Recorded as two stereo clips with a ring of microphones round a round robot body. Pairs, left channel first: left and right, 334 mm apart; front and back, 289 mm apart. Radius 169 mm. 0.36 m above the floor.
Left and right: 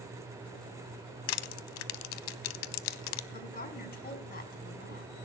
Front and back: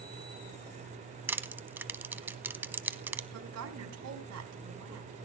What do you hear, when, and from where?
1.3 s crushing: 95° left, 0.6 m
3.3 s a woman speaking: 155° left, 3.5 m